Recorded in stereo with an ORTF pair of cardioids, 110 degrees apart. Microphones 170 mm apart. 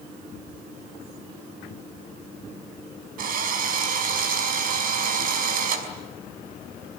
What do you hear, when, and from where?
3.2 s a drill: 55° right, 5.5 m